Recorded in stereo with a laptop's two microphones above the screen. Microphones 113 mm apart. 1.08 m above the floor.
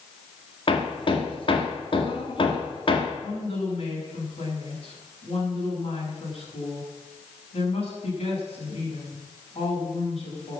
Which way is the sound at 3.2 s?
60° left (ahead or behind).